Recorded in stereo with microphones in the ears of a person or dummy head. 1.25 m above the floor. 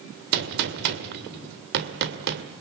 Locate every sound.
0.3 s a gunshot: 65° right (ahead or behind), 2 m